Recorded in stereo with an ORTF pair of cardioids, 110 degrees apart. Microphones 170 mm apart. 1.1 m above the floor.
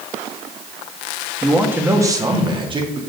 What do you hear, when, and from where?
1.4 s a man speaking: 5° right, 1.4 m; by 3.0 s 35° right, 2 m